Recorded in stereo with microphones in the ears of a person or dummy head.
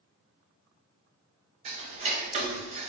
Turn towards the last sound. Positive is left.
turn(degrees=-35)  # may be behind; listen again after turning